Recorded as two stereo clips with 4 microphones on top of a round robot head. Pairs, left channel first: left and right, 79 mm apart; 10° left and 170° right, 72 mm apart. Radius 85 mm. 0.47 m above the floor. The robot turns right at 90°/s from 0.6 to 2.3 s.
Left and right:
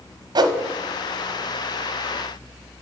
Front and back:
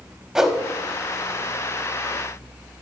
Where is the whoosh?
85° right, 0.7 m.